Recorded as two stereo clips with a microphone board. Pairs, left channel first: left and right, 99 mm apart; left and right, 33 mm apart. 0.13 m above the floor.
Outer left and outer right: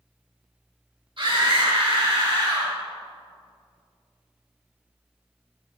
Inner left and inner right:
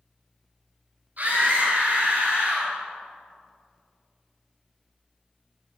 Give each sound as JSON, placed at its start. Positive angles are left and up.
{"t": 1.2, "sound": "a scream", "side_deg": -55, "distance_m": 5.0}